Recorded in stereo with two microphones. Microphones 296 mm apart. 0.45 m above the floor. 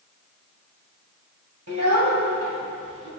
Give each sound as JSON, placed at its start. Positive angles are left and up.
{"t": 1.7, "sound": "a child speaking", "side_deg": -65, "distance_m": 2.0}